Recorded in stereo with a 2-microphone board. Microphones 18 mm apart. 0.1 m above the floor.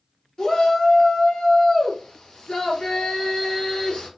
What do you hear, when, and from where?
0.4 s a shout: 45° left (ahead or behind), 1.9 m